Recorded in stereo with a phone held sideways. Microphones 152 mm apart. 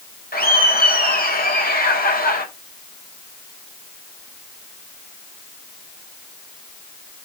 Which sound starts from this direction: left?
Laughter, at 0.3 s.